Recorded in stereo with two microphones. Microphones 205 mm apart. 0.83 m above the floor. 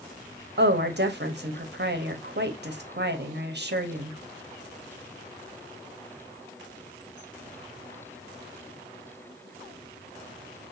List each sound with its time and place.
0.6 s a woman speaking: 55° right (ahead or behind), 1.1 m